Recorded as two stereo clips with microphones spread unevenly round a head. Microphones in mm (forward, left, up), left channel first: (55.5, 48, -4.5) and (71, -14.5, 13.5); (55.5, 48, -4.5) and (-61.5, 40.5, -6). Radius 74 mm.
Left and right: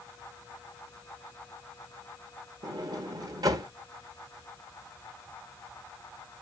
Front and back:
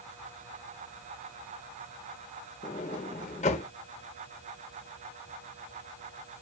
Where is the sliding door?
50° right, 1.0 m.